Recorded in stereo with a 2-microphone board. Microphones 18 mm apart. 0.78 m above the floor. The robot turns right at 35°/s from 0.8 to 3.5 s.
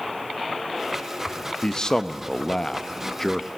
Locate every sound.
1.6 s a man speaking: 90° left, 0.8 m; by 3.5 s 155° left, 0.8 m